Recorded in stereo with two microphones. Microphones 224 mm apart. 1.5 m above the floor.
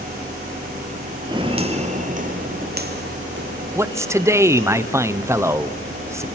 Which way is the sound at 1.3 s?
20° right (ahead or behind).